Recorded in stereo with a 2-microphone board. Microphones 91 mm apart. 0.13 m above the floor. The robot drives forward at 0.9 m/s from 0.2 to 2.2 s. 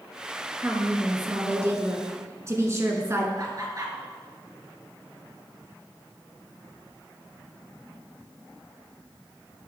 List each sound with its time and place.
0.6 s a woman speaking: 20° right (ahead or behind), 1.9 m; by 3.3 s 30° right (ahead or behind), 1.3 m
3.4 s laughter: 40° right (ahead or behind), 2 m